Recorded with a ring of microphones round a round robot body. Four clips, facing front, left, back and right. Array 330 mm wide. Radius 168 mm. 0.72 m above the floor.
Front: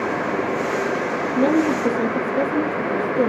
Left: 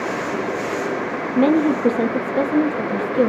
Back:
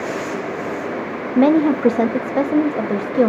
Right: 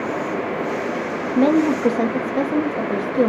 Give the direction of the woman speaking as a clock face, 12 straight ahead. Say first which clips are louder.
Even, back 5 dB; 6 o'clock.